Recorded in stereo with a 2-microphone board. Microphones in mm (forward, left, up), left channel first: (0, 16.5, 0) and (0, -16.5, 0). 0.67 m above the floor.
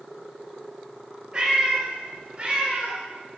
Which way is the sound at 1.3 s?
25° right (ahead or behind).